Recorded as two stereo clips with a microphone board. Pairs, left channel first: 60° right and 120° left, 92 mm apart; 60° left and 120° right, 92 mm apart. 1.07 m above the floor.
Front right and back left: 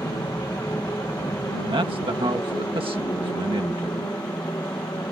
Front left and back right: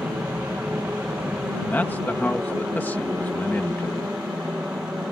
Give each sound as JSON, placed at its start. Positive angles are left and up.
{"t": 0.0, "sound": "an aircraft", "azimuth_deg": -60}
{"t": 1.7, "sound": "a man speaking", "azimuth_deg": 130}